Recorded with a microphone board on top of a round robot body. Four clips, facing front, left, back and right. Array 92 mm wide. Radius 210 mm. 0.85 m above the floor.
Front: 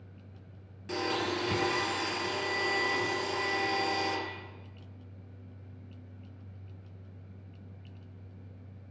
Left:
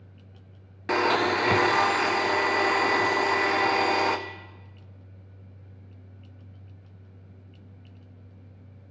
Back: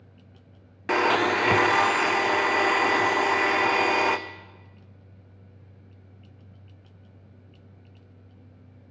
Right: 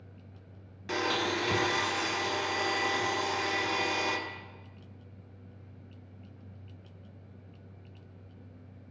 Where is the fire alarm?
I don't hear a fire alarm.